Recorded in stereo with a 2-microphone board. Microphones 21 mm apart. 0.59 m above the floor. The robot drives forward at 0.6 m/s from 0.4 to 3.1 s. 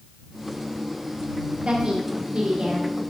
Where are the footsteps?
No footsteps in this recording.